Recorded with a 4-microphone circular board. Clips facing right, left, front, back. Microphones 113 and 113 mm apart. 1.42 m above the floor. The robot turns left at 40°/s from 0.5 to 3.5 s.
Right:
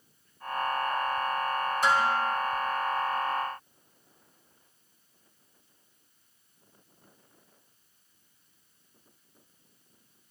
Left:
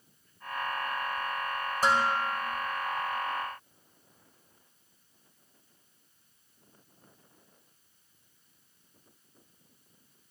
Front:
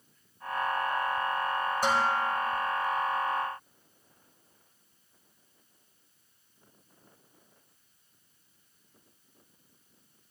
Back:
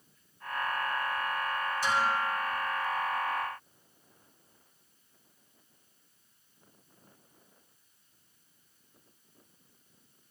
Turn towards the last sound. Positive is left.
turn(degrees=-30)